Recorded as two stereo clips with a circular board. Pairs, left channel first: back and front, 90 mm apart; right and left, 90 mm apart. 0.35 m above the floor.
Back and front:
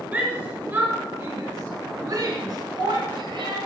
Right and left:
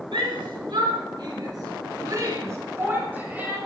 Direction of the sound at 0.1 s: 70° left.